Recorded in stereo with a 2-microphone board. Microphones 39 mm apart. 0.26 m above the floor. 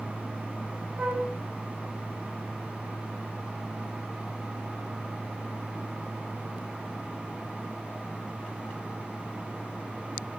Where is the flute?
55° right (ahead or behind), 6.5 m.